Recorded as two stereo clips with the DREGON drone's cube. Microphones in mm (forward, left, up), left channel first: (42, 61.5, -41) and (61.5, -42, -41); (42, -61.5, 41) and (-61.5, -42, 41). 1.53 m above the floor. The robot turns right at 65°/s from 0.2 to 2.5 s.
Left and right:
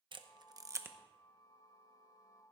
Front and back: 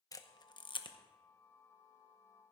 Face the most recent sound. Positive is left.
turn(degrees=90)